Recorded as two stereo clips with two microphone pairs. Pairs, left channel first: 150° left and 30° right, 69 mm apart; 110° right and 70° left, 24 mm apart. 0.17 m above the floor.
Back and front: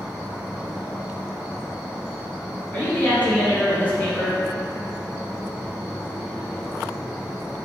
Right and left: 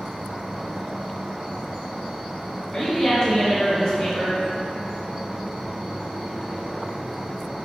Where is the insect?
50° left, 1.1 m.